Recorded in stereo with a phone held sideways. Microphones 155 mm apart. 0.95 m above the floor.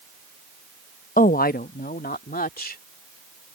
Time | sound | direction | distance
1.2 | a woman speaking | 60° left (ahead or behind) | ?